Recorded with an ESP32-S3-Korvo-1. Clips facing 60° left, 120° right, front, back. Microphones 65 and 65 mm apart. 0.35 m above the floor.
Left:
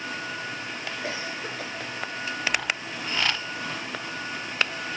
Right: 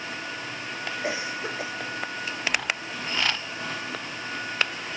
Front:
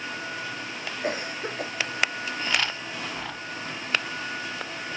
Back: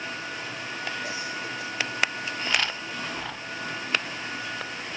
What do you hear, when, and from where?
1.0 s a cough: 45° right